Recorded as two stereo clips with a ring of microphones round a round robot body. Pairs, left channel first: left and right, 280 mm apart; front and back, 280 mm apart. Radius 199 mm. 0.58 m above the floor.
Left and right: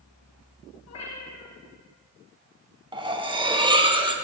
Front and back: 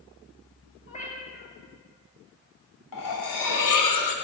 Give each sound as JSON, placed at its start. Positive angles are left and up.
{"t": 0.9, "sound": "a cat meowing", "azimuth_deg": 65, "distance_m": 4.0}
{"t": 2.9, "sound": "cutlery clinking", "azimuth_deg": -15, "distance_m": 1.5}